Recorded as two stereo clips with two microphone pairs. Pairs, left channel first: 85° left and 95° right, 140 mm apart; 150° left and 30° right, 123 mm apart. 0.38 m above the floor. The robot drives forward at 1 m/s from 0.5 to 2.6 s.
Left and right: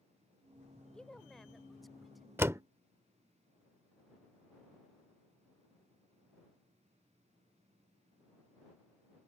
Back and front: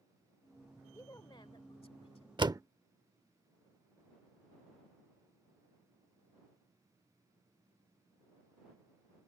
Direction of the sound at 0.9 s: 155° left.